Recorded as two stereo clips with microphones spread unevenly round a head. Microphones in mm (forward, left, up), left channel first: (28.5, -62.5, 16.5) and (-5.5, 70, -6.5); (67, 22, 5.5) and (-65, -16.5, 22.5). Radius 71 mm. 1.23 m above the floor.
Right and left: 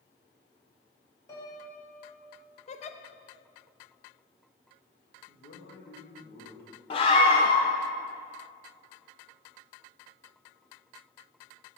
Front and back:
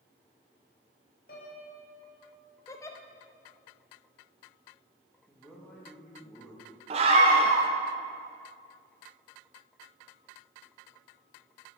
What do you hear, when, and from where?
1.3 s a piano: 10° right, 2.5 m
2.7 s a giggle: 55° right, 0.6 m
5.3 s a man speaking: 65° right, 2 m
6.9 s a scream: 125° right, 0.7 m